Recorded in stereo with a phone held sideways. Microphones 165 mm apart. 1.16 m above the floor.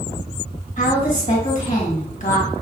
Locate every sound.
0.8 s a woman speaking: 45° left (ahead or behind), 1.1 m